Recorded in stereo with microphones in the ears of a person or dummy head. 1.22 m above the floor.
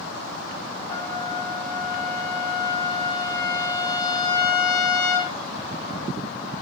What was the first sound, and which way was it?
A trumpet, 25° left (ahead or behind).